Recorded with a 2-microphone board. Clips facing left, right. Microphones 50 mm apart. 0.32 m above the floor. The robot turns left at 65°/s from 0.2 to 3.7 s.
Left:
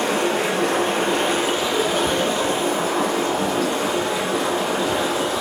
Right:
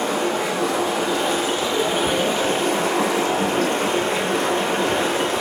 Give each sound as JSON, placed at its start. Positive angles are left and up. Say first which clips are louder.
{"t": 0.0, "sound": "running water", "louder": "left 1 dB", "azimuth_deg": 115, "distance_m": 8.0}